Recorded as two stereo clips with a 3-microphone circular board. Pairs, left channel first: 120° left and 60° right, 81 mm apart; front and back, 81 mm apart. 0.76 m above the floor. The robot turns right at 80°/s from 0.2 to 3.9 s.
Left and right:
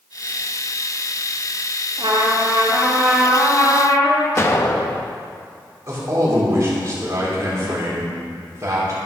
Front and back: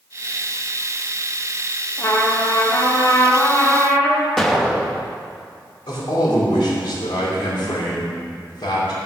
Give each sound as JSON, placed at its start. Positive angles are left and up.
{"t": 2.0, "sound": "a trumpet", "azimuth_deg": -55, "distance_m": 1.7}
{"t": 4.4, "sound": "an explosion", "azimuth_deg": 85, "distance_m": 0.7}
{"t": 5.9, "sound": "a man speaking", "azimuth_deg": -15, "distance_m": 2.5}